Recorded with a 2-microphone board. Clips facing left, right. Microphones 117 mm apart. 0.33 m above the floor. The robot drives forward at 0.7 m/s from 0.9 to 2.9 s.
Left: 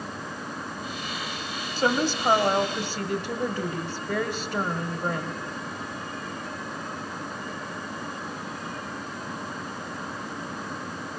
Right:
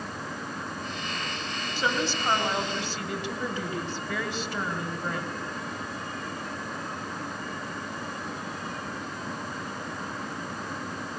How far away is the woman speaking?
About 1.6 m.